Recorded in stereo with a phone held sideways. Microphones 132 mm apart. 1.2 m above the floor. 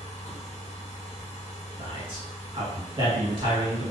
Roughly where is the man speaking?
Right.